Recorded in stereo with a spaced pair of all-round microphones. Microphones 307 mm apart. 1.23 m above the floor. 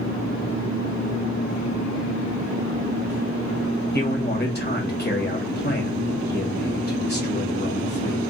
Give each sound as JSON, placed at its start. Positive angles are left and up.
{"t": 3.9, "sound": "a man speaking", "side_deg": 35, "distance_m": 1.8}